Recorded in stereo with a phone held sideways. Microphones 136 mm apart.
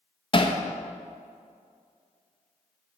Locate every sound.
0.3 s hammering: 35° left (ahead or behind), 0.6 m